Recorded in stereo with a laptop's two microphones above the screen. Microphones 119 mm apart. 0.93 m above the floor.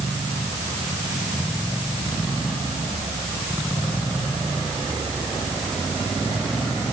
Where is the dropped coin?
No dropped coin in this recording.